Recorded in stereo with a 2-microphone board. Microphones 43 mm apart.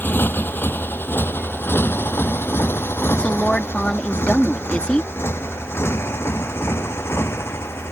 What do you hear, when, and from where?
0.0 s a motorcycle: 50° left (ahead or behind); by 7.9 s 75° left (ahead or behind)
3.2 s a woman speaking: 25° left (ahead or behind)